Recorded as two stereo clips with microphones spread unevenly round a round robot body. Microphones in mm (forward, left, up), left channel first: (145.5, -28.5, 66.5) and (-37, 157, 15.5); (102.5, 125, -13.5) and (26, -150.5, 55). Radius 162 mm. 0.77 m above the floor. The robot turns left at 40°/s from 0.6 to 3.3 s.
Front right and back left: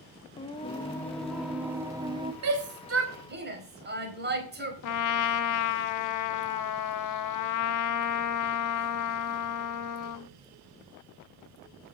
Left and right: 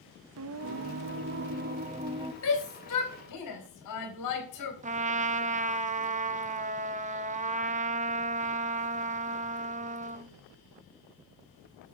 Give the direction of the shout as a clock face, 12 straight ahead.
8 o'clock.